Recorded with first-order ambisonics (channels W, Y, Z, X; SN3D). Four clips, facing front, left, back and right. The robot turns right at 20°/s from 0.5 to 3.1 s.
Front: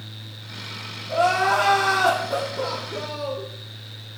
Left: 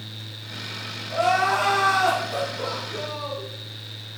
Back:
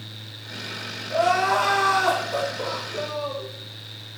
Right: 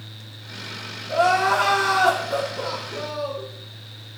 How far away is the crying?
About 1.1 m.